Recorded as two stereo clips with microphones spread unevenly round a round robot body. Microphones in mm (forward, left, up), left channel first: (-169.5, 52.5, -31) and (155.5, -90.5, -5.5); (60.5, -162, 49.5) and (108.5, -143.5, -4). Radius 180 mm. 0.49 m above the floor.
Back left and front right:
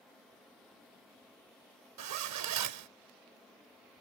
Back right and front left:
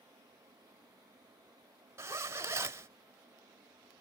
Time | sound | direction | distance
2.0 | a zipper | 25° left | ?